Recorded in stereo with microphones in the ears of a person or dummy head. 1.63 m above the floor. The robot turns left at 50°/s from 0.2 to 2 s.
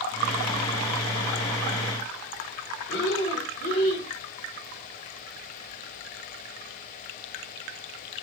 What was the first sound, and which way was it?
Breathing, 60° left (ahead or behind).